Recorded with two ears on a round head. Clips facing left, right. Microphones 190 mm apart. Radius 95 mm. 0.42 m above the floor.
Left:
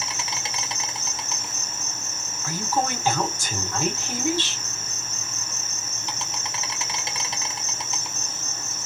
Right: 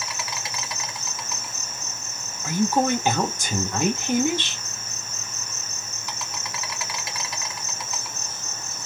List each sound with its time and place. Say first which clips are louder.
0.0 s an insect: even; 20° left (ahead or behind), 0.9 m
2.4 s a woman speaking: right 5 dB; 15° right (ahead or behind), 1.0 m